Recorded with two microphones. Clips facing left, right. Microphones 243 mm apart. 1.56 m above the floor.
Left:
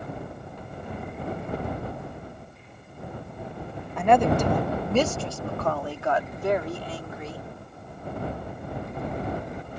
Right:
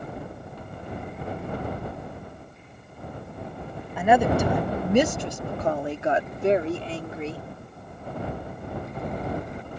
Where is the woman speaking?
5° right (ahead or behind); by 7.5 s 30° right (ahead or behind).